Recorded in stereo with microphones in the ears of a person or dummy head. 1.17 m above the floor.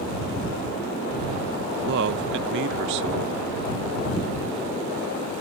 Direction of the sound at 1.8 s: 60° right (ahead or behind).